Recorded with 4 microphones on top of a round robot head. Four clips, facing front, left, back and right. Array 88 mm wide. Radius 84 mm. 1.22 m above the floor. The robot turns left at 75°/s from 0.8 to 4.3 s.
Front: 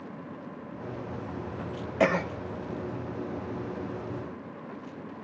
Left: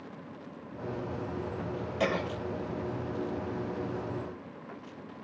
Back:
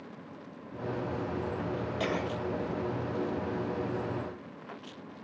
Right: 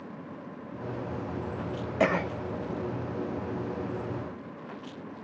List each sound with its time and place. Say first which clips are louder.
2.0 s a cough: right 5 dB, front 9 dB; 40° right, 1.1 m; by 2.3 s 65° right, 1.1 m